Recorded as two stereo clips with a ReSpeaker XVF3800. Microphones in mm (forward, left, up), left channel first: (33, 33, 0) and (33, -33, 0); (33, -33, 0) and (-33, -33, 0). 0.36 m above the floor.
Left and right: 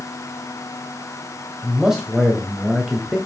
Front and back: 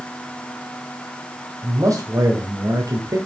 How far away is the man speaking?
About 1.4 m.